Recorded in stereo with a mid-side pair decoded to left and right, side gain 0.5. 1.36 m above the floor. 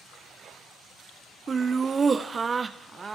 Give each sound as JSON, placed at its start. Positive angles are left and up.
{"t": 1.5, "sound": "laughter", "azimuth_deg": -35, "distance_m": 0.6}